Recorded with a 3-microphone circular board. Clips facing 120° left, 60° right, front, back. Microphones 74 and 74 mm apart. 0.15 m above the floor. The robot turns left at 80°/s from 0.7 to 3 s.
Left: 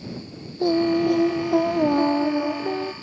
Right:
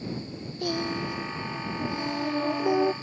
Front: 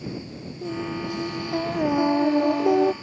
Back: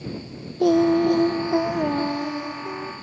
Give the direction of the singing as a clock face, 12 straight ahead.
6 o'clock.